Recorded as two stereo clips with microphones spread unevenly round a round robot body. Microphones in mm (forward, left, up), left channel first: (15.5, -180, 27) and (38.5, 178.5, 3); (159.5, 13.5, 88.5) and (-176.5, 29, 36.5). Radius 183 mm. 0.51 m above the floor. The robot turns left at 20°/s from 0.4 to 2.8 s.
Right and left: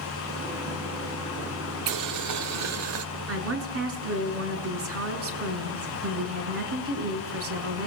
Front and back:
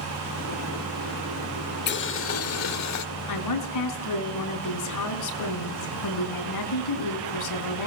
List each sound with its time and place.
1.9 s boiling: 60° left, 1.5 m; by 3.0 s 40° left, 1.5 m
3.3 s a woman speaking: 35° left, 4.5 m